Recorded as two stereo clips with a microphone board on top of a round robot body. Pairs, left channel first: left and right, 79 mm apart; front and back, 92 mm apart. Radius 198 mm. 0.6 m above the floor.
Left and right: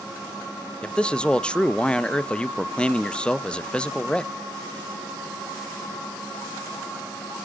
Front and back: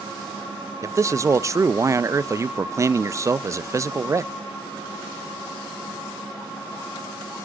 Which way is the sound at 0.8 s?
160° left.